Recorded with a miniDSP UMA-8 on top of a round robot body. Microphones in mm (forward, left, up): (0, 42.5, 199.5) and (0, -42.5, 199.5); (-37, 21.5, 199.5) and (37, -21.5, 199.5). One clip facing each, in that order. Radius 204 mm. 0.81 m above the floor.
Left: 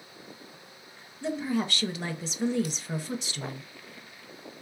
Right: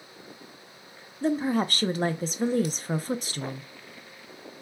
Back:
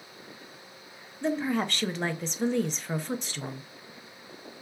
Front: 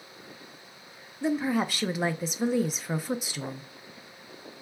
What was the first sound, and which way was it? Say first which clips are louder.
A woman speaking: right 4 dB, front 1 dB; 110° right.